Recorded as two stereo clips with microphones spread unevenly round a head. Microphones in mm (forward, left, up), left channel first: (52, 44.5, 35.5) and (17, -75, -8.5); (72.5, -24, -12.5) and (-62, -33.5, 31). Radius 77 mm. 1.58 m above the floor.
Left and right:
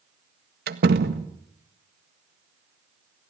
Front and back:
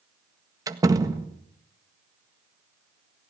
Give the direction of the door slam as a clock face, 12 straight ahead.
4 o'clock.